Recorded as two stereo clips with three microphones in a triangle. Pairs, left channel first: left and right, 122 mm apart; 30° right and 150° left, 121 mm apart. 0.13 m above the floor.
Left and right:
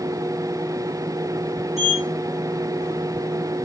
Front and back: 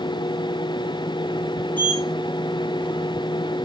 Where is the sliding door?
105° right, 4.5 m.